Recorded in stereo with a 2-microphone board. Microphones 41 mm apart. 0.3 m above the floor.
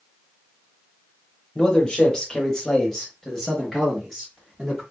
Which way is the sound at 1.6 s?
25° left (ahead or behind).